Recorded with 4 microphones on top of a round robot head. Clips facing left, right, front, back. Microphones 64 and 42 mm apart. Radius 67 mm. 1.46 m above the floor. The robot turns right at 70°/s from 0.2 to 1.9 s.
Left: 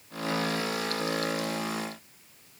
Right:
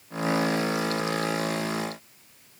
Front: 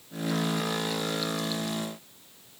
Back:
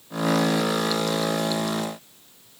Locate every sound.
Only background noise.